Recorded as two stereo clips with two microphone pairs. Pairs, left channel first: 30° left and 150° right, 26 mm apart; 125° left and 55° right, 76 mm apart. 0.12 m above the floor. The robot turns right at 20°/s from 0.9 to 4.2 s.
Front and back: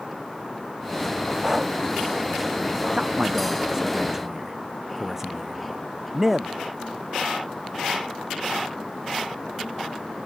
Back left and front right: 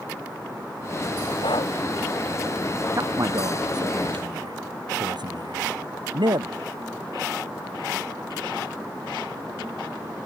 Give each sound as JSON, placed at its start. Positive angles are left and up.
{"t": 1.4, "sound": "breathing", "azimuth_deg": 125}
{"t": 2.9, "sound": "a man speaking", "azimuth_deg": -95}